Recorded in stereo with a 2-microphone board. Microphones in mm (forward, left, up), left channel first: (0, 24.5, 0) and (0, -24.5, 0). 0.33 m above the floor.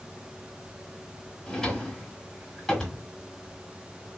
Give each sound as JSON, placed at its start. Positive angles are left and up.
{"t": 1.5, "sound": "a drawer", "side_deg": 10, "distance_m": 1.4}